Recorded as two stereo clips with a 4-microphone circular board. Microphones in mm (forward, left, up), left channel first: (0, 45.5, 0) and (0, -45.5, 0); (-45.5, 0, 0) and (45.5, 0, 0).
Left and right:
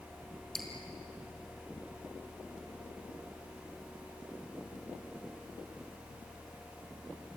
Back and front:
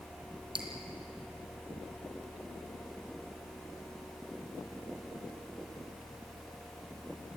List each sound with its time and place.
0.6 s dripping: 5° left, 3.5 m